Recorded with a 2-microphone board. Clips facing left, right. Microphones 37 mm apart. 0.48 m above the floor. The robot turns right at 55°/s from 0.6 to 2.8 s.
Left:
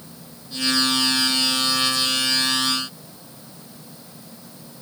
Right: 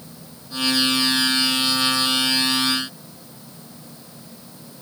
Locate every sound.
Only background noise.